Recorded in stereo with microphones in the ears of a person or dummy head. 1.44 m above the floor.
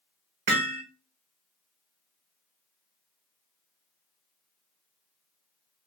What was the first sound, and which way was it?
Hammering, 40° right (ahead or behind).